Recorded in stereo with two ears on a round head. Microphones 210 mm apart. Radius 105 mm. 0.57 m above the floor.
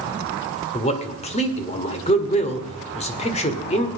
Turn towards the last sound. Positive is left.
turn(degrees=30)  # may be behind; listen again after turning